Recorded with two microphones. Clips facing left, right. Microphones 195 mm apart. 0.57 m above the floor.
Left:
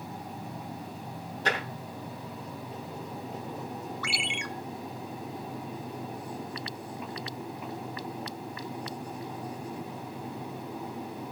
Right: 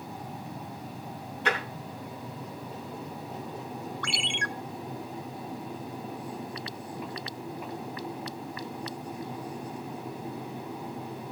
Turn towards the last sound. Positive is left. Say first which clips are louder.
# right 1 dB
turn(degrees=5)  # may be behind; listen again after turning